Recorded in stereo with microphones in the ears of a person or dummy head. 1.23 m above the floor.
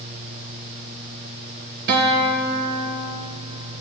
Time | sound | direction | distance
1.9 | a guitar | 55° right (ahead or behind) | 2.0 m